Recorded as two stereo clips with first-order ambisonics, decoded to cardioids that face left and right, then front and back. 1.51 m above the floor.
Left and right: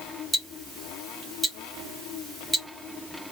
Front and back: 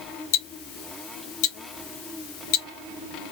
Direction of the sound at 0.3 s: Straight ahead.